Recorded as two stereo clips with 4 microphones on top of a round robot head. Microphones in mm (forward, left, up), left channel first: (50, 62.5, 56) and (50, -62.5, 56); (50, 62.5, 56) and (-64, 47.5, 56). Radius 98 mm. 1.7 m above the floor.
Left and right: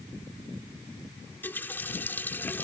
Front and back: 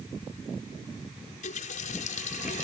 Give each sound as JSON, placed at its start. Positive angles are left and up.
{"t": 1.3, "sound": "a running tap", "azimuth_deg": 15}